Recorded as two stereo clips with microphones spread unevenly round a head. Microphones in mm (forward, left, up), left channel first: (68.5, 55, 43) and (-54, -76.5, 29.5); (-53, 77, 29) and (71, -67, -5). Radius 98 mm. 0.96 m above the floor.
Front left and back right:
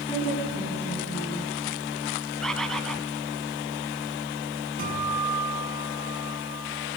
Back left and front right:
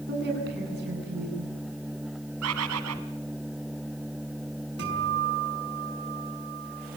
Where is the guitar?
85° right, 7.5 m.